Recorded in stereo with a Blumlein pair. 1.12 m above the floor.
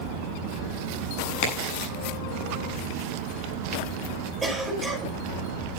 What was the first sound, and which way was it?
A crack, 45° left.